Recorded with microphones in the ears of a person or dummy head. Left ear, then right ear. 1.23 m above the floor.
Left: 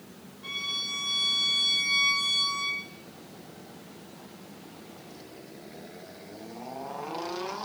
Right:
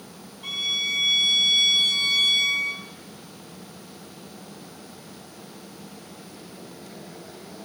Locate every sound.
0.4 s a violin: 30° right (ahead or behind), 3.5 m